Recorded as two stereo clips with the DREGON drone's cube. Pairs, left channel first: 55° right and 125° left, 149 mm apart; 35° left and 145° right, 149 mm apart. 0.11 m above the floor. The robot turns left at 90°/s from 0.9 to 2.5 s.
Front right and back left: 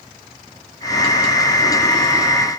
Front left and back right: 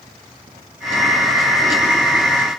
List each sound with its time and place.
Only background noise.